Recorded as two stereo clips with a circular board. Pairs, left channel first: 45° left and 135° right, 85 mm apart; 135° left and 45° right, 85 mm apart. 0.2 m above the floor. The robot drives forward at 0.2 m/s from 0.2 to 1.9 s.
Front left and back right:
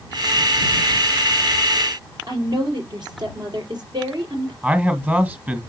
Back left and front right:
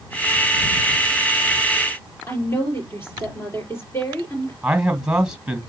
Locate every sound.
2.3 s a woman speaking: 165° right, 5 m
4.6 s a man speaking: 110° right, 1.7 m